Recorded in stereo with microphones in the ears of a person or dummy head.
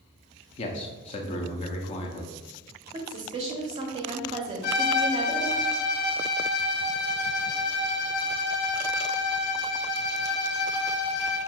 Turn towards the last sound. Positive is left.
turn(degrees=65)  # may be behind; listen again after turning